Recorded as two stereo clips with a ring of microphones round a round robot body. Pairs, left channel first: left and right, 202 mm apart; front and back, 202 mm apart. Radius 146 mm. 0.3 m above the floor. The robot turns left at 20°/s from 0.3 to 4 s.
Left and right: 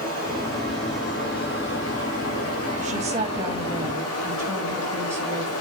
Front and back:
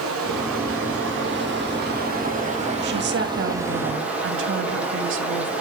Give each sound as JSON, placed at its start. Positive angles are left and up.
{"t": 0.0, "sound": "running water", "azimuth_deg": 170, "distance_m": 5.5}
{"t": 2.8, "sound": "a woman speaking", "azimuth_deg": -145, "distance_m": 2.0}